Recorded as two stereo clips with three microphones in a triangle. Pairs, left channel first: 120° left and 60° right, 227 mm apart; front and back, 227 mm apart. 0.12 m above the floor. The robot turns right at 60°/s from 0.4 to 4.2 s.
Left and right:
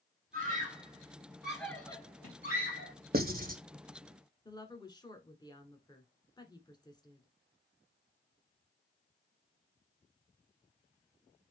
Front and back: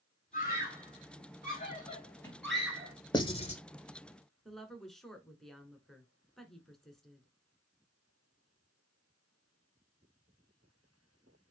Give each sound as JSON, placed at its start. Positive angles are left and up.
{"t": 0.3, "sound": "a scream", "azimuth_deg": -35, "distance_m": 1.6}
{"t": 3.1, "sound": "writing", "azimuth_deg": -60, "distance_m": 0.7}
{"t": 4.5, "sound": "a woman speaking", "azimuth_deg": 85, "distance_m": 1.1}